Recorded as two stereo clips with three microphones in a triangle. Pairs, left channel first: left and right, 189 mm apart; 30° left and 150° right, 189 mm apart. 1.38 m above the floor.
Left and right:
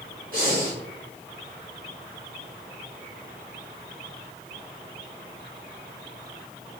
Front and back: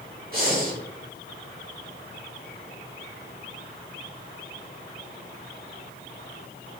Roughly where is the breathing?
Behind right.